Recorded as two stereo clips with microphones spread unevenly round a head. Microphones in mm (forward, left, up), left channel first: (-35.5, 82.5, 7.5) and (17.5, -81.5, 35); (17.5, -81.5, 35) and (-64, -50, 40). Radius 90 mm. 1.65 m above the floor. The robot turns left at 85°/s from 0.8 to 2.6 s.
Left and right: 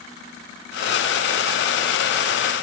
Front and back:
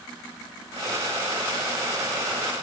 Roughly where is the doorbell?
I don't hear a doorbell.